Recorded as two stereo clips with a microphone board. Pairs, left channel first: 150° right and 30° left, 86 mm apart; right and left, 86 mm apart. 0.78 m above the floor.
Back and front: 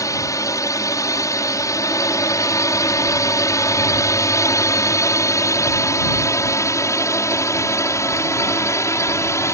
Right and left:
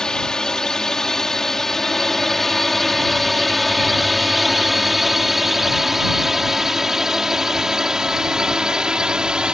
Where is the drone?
170° right; by 9.5 s 170° left.